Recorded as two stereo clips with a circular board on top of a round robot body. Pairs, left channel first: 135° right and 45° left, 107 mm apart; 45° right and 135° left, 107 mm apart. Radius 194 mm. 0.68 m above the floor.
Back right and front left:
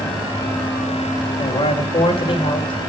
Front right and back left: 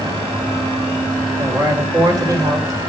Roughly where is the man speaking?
Behind.